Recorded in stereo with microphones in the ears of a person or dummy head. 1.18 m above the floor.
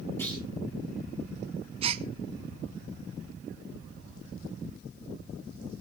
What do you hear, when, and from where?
0.2 s a clunk: 10° left (ahead or behind), 8 m
1.8 s a gasp: 30° right (ahead or behind), 0.6 m